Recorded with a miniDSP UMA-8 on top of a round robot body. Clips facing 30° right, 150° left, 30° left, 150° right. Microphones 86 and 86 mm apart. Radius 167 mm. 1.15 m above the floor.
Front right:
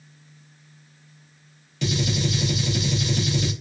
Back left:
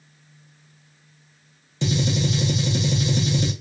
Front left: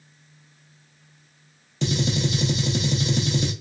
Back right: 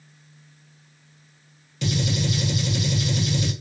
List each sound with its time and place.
1.8 s a gunshot: 85° left, 0.9 m